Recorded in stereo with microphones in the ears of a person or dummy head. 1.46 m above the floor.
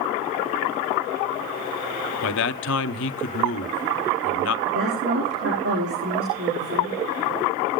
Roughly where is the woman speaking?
Right.